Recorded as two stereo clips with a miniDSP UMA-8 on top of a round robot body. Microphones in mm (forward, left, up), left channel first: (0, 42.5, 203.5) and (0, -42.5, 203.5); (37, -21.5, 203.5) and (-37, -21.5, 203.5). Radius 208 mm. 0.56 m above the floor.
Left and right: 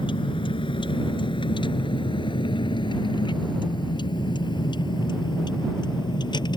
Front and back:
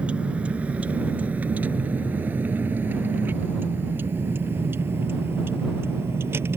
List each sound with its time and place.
0.0 s a vehicle: 105° left; by 6.6 s 120° left